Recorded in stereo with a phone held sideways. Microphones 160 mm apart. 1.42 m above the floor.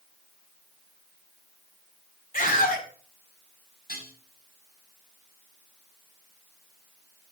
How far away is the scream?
About 5 m.